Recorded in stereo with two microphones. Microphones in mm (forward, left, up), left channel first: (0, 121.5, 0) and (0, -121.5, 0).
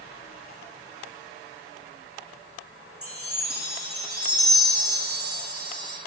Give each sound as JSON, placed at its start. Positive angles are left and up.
{"t": 3.0, "sound": "a chime", "side_deg": -65, "distance_m": 4.0}